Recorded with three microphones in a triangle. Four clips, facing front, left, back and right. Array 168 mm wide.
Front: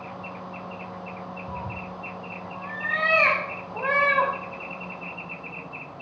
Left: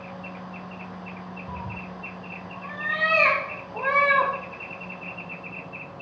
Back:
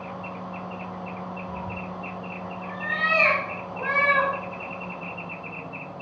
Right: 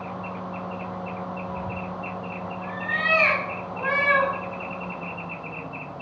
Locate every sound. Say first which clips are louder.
1.5 s a cat meowing: right 5 dB, back 1 dB; 45° left, 4 m; by 4.3 s 55° left, 7.5 m